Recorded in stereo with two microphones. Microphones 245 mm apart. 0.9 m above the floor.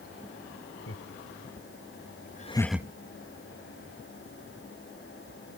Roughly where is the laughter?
Left.